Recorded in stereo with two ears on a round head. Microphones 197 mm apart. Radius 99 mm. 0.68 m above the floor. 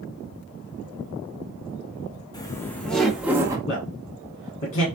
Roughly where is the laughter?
Centre.